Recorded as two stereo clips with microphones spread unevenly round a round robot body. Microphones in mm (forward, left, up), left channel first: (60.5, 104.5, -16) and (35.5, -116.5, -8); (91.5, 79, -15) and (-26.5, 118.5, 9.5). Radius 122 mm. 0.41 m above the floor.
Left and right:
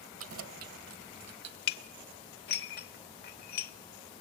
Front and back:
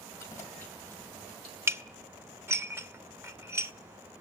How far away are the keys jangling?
About 1.6 m.